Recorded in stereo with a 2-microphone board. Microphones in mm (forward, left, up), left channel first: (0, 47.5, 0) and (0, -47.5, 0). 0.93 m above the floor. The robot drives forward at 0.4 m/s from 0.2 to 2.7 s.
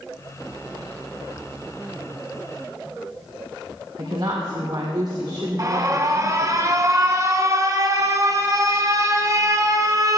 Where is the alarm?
35° right (ahead or behind), 0.8 m.